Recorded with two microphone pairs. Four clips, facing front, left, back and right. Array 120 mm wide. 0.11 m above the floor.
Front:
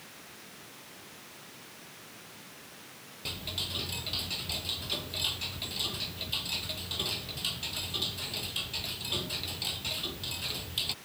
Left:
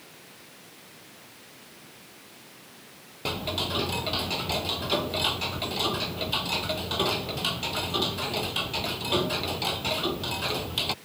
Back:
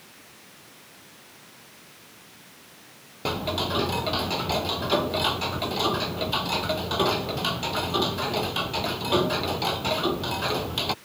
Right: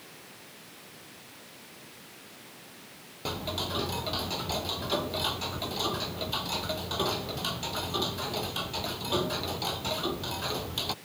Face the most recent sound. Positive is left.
turn(degrees=165)